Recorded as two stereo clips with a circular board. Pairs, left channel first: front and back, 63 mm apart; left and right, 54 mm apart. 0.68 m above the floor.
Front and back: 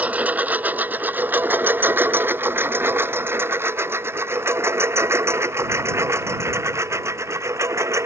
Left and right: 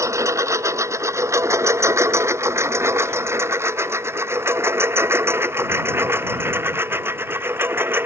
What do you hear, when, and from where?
0.0 s a lawn mower: 115° right; by 8.1 s 140° right